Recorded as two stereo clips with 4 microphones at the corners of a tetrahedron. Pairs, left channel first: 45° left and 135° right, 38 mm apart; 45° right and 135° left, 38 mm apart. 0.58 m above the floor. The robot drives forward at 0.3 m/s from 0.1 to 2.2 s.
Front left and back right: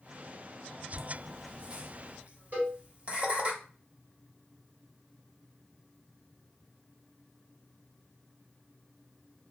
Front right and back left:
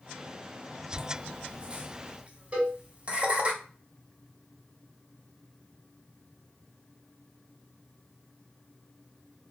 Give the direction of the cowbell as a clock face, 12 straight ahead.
6 o'clock.